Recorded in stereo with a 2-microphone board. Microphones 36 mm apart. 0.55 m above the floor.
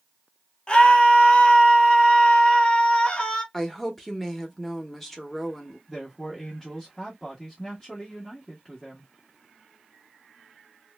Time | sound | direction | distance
0.7 | a scream | 25° left (ahead or behind) | 0.8 m
3.5 | a woman speaking | 5° left (ahead or behind) | 0.8 m
5.9 | a man speaking | 15° left (ahead or behind) | 0.9 m